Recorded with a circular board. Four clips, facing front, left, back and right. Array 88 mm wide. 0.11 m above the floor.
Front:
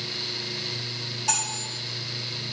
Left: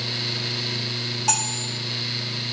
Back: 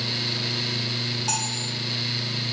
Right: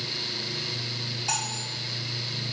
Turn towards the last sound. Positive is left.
turn(degrees=95)